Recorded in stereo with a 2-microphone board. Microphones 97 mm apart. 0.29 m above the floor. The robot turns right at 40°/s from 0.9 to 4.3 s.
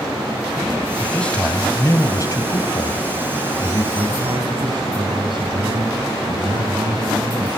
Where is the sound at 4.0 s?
45° right (ahead or behind), 3 m; by 7.5 s 55° right (ahead or behind), 3 m.